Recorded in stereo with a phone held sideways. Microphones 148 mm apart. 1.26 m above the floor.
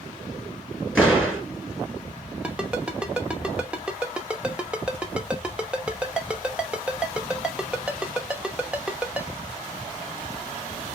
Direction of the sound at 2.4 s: 10° right (ahead or behind).